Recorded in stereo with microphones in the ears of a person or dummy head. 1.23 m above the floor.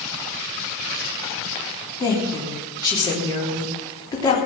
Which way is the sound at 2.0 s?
15° left (ahead or behind).